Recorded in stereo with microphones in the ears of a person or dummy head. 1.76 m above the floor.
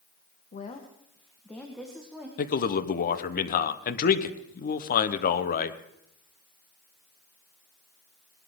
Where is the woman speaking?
35° left (ahead or behind), 1.4 m; by 2.3 s 10° right (ahead or behind), 1.8 m.